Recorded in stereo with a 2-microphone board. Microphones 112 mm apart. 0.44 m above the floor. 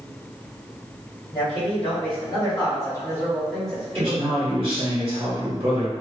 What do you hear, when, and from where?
1.3 s a man speaking: 60° left (ahead or behind), 2.0 m; by 4.7 s 25° right (ahead or behind), 1.3 m
4.0 s a man speaking: 60° right (ahead or behind), 1.4 m